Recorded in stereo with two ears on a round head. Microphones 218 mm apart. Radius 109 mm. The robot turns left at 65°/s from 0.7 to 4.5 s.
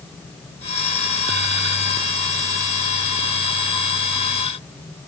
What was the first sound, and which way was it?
Only background noise.